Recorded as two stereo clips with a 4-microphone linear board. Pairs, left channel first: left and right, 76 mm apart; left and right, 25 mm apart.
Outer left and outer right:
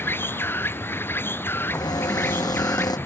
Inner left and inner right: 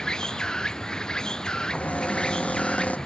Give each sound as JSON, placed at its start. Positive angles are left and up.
{"t": 0.0, "sound": "an insect", "side_deg": 30}
{"t": 1.7, "sound": "a cupboard door", "side_deg": 65}